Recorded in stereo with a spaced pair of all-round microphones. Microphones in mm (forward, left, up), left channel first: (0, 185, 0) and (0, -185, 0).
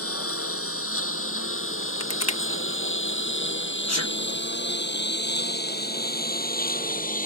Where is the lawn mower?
40° left (ahead or behind); by 7.3 s 20° left (ahead or behind).